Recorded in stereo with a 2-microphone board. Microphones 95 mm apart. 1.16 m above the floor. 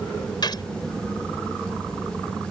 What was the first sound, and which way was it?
A gunshot, 50° left (ahead or behind).